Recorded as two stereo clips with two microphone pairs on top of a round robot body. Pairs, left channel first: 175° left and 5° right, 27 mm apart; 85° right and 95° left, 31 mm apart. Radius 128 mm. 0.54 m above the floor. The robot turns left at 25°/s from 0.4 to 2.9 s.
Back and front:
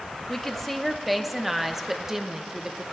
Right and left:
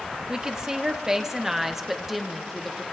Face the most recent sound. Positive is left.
turn(degrees=10)